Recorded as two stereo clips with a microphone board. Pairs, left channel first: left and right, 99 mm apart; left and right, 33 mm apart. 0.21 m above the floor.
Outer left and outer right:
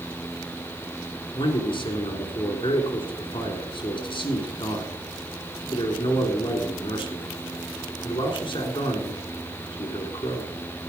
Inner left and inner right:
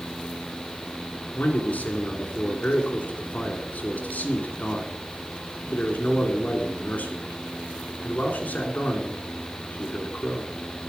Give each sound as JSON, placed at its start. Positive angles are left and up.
{"t": 1.3, "sound": "a man speaking", "side_deg": 60, "distance_m": 2.5}